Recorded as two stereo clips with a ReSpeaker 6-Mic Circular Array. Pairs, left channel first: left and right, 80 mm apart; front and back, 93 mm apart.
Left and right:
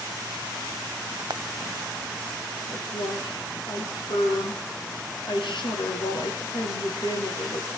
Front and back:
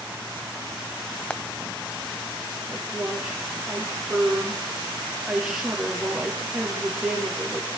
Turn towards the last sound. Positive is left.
turn(degrees=90)